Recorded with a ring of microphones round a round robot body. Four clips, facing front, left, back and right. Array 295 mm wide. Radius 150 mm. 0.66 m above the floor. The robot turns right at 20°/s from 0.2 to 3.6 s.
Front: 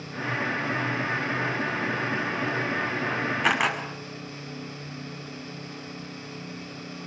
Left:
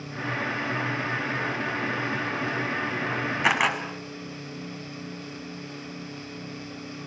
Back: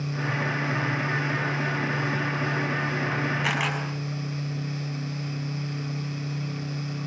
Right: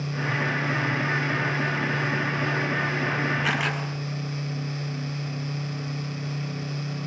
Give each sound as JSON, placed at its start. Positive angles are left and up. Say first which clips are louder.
{"t": 3.4, "sound": "a camera shutter", "louder": "left 3 dB, front 3 dB", "azimuth_deg": 65, "distance_m": 7.0}